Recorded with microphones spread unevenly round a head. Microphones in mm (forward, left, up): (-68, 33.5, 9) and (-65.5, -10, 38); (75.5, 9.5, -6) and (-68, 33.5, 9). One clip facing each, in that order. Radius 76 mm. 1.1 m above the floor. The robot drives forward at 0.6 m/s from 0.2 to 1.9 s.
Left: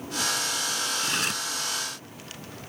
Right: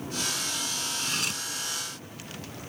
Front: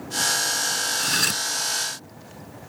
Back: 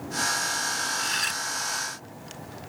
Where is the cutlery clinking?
25° left.